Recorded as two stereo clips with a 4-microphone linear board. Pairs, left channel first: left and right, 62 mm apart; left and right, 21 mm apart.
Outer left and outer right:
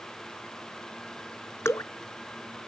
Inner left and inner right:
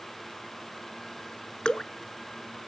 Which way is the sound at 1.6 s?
45° left (ahead or behind).